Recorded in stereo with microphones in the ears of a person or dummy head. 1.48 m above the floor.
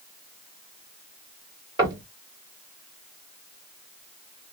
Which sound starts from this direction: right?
Knocking, at 1.8 s.